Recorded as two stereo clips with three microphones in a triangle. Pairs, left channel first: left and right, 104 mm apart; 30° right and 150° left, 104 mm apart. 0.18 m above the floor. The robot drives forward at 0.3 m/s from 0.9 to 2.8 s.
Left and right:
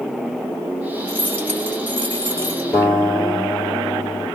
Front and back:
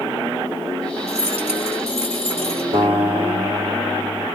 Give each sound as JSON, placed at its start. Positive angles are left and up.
{"t": 1.1, "sound": "keys jangling", "azimuth_deg": 165, "distance_m": 2.5}
{"t": 2.7, "sound": "a guitar", "azimuth_deg": 170, "distance_m": 3.0}